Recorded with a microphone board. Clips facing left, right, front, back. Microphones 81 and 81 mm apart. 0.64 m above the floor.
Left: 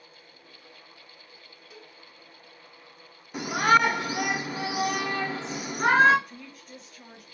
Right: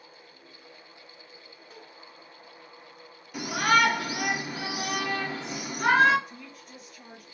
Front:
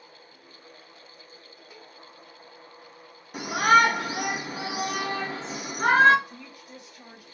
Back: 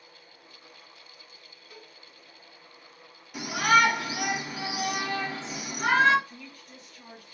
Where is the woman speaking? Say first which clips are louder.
Left 1 dB, front 2 dB; 10° right, 0.9 m.